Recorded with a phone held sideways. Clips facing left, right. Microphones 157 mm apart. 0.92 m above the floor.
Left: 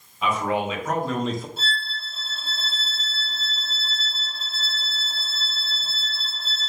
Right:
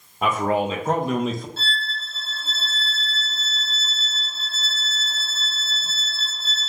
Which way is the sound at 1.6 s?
15° left (ahead or behind).